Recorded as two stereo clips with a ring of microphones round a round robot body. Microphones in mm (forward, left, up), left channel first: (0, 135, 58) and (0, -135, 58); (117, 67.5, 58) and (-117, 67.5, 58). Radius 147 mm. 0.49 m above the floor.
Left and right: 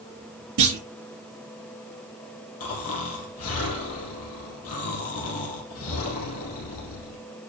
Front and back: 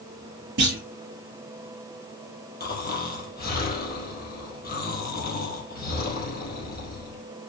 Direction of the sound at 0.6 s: 130° right.